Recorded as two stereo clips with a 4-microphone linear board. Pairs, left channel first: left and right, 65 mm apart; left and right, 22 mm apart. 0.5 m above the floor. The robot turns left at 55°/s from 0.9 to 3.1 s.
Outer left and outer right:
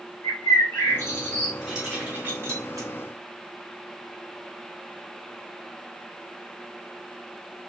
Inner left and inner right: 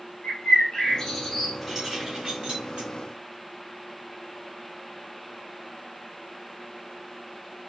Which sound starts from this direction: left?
A bird, at 0.2 s.